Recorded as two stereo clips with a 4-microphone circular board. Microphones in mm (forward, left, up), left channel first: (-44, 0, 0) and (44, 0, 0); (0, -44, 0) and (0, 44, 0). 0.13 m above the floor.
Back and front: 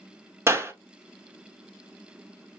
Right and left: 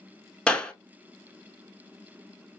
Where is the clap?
20° right, 1.0 m.